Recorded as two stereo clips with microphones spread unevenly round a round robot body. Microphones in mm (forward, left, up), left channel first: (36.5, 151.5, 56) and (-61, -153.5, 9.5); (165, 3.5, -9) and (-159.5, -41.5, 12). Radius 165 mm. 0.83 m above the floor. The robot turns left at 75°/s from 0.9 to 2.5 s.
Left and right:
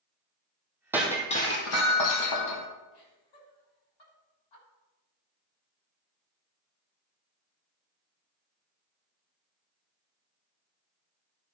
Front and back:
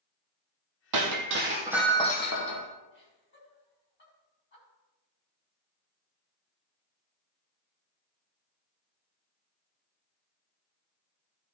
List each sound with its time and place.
0.9 s breaking glass: 165° left, 1.8 m; by 2.7 s 50° left, 1.8 m
2.9 s laughter: 65° left, 5.5 m